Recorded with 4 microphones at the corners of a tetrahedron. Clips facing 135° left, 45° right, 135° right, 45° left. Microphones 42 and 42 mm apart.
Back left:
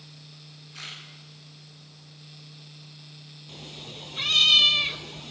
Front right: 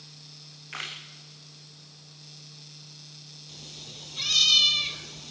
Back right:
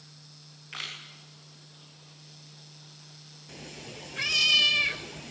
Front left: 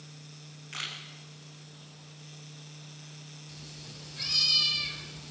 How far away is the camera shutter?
About 6 m.